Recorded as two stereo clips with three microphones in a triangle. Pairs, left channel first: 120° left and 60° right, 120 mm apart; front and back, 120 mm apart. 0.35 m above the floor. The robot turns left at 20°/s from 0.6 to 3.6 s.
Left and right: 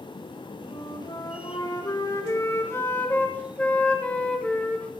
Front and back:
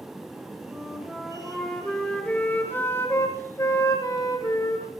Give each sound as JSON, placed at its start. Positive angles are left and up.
{"t": 0.7, "sound": "a flute", "azimuth_deg": 105, "distance_m": 1.3}